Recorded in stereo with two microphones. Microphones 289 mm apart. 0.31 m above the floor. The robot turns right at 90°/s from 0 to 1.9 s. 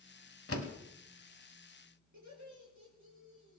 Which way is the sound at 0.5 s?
50° left (ahead or behind).